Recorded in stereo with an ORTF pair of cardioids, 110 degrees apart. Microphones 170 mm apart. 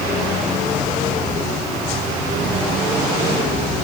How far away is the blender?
No blender in this recording.